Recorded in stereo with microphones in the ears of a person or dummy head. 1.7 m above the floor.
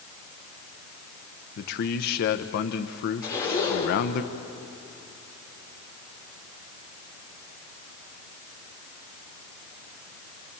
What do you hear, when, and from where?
1.6 s a man speaking: 55° left (ahead or behind), 1.0 m
3.2 s a zipper: 20° left (ahead or behind), 6.5 m